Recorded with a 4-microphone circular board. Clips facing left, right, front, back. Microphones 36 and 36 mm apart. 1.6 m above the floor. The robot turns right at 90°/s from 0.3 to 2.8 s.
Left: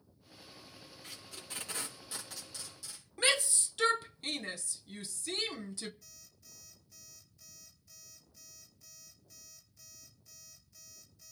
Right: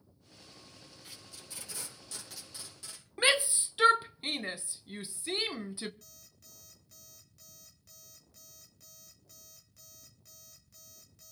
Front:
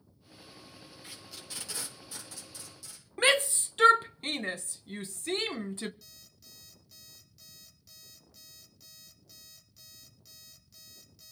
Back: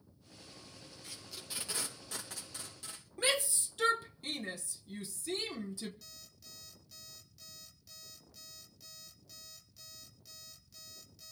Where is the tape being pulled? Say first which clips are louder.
Left 4 dB, front 1 dB; 65° left, 3.5 m; by 3.0 s 140° right, 3.5 m.